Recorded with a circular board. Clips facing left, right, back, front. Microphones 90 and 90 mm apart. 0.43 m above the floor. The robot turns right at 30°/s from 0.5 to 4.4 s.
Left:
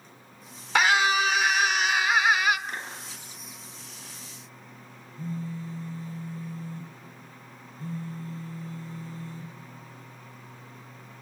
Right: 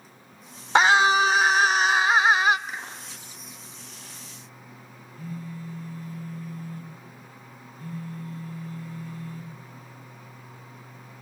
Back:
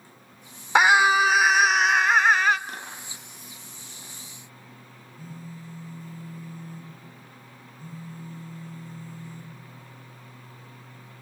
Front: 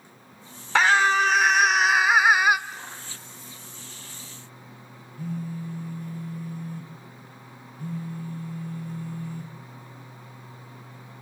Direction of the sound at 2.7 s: Straight behind.